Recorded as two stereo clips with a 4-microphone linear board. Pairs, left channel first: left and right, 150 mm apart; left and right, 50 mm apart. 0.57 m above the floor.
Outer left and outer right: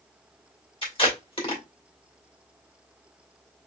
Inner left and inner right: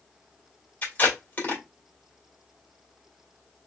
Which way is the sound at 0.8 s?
35° left (ahead or behind).